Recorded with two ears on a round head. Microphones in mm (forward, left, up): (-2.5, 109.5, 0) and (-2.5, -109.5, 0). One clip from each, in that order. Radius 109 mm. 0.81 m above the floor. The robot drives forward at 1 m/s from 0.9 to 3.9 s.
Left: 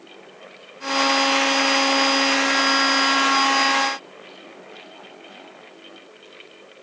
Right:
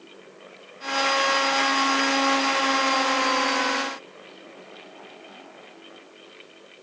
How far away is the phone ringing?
I don't hear a phone ringing.